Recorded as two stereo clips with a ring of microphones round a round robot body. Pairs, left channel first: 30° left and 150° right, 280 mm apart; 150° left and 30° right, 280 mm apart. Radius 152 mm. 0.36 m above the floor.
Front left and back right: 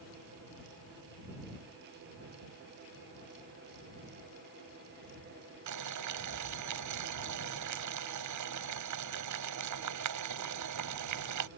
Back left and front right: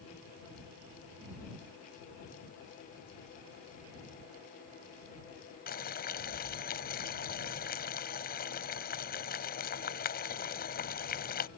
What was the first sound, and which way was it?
Boiling, 155° right.